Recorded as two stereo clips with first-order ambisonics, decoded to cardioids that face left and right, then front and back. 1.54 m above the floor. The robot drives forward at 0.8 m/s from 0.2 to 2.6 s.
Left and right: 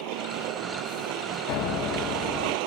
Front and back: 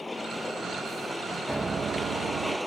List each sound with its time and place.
0.0 s a vehicle: 85° right; by 2.7 s 90° right
1.5 s a piano: 95° left; by 2.6 s 145° left